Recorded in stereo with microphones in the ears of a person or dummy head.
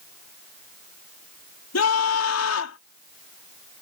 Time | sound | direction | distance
1.7 | a scream | 80° left | ?